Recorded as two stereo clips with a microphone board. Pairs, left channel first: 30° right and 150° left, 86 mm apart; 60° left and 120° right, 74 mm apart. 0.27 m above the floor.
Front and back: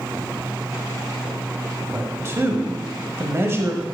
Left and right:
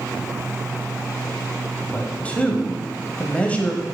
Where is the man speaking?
115° left, 1.0 m.